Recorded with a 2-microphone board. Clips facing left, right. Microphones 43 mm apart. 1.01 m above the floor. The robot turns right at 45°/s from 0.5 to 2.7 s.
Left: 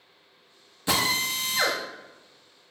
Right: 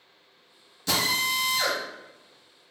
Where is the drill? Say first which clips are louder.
Even; 20° left, 1.2 m; by 1.8 s 65° left, 1.2 m.